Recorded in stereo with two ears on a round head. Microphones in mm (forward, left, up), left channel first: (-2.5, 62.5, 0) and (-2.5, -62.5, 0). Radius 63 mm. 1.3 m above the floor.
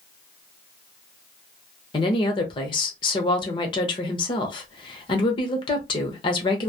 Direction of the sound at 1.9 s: 35° left (ahead or behind).